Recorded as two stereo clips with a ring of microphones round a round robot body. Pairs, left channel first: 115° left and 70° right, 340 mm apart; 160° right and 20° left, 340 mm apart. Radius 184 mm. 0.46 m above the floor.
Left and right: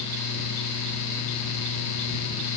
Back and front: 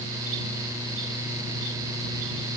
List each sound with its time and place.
Only background noise.